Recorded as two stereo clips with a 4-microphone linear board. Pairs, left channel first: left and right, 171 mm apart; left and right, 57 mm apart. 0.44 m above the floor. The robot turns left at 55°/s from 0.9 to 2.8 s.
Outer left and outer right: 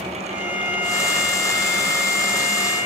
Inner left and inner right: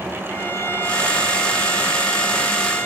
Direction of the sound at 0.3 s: 130° left.